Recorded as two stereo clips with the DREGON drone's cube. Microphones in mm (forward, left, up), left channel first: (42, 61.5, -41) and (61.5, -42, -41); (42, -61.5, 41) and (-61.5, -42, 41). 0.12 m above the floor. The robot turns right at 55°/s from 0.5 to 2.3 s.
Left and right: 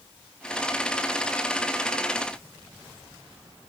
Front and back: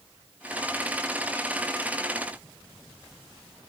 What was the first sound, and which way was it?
Only background noise.